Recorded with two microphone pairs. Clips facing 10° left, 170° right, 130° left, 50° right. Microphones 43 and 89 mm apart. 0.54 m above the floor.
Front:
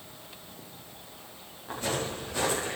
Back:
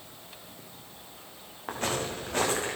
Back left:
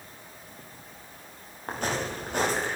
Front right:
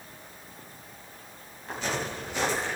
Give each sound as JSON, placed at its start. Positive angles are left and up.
{"t": 1.7, "sound": "footsteps", "azimuth_deg": 165, "distance_m": 6.5}